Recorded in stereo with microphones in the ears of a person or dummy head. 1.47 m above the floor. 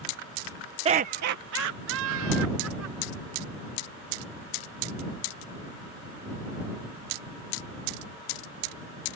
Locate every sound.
0.8 s laughter: 25° right (ahead or behind); by 3.5 s 85° right